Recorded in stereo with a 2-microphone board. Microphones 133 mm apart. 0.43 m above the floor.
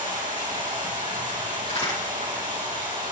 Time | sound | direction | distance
0.0 | running water | 85° right | 4.5 m
1.6 | a crack | 55° left (ahead or behind) | 6 m